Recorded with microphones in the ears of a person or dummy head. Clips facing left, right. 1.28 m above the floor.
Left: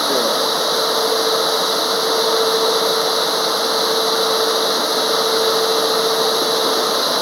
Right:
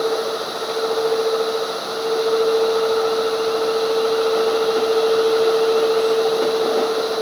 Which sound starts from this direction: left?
Running water, at 0.0 s.